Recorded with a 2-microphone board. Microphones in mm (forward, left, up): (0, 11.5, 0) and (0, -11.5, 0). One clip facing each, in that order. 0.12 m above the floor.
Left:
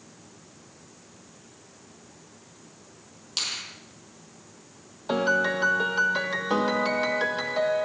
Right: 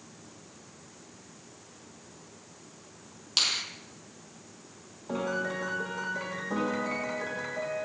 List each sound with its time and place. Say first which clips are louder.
3.4 s a finger snap: right 3 dB; 15° right (ahead or behind), 3.5 m
5.1 s a piano: left 8 dB; 70° left (ahead or behind), 3 m